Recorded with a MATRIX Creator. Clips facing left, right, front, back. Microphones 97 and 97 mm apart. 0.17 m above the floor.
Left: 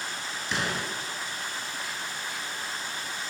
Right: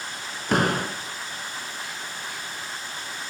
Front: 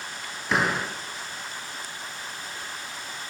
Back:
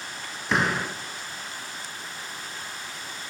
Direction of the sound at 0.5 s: 90° right.